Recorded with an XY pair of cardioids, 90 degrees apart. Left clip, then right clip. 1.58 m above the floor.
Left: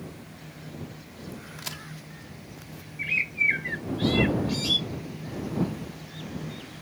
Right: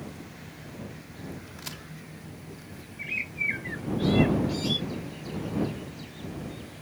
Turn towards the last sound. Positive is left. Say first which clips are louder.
# left 6 dB
turn(degrees=45)